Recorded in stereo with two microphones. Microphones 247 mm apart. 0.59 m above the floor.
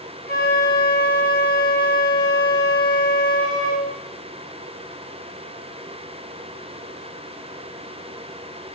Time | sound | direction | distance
0.3 | a flute | 40° left (ahead or behind) | 9.5 m